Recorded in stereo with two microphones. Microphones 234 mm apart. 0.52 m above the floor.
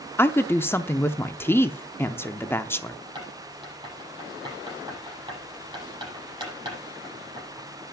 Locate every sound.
0.2 s a woman speaking: 10° left (ahead or behind), 0.7 m
3.1 s writing: 20° right (ahead or behind), 8 m